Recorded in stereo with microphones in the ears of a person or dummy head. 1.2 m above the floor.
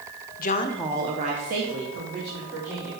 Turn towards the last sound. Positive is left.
turn(degrees=-60)  # may be behind; listen again after turning